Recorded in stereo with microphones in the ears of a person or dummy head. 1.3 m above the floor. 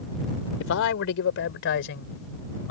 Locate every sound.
0.6 s a man speaking: 70° left (ahead or behind); by 2.7 s 60° left (ahead or behind)